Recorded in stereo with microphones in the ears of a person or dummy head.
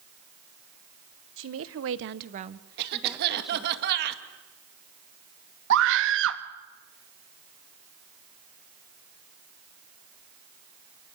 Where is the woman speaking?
65° right (ahead or behind), 1.5 m; by 3.8 s 5° left (ahead or behind), 2.5 m.